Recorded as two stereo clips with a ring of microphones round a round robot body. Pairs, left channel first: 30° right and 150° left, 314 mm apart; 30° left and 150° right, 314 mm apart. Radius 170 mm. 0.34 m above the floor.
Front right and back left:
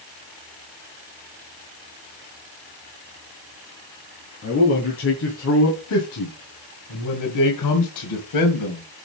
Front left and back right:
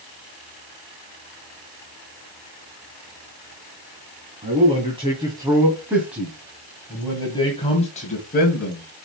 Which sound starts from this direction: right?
A man speaking, at 4.4 s.